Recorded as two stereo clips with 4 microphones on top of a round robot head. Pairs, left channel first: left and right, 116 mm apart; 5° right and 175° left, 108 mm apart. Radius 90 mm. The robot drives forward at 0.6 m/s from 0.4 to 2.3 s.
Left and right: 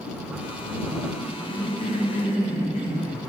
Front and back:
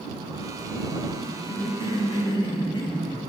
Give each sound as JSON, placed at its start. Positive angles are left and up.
{"t": 1.2, "sound": "a cough", "azimuth_deg": 25, "distance_m": 1.8}